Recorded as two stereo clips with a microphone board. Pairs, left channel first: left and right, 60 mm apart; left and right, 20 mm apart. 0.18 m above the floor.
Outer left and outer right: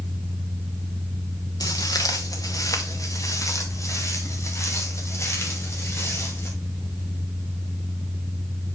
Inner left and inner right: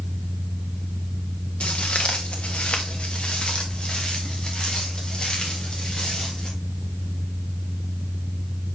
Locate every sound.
1.6 s footsteps: 80° left, 1.2 m; by 6.5 s 45° left (ahead or behind), 4 m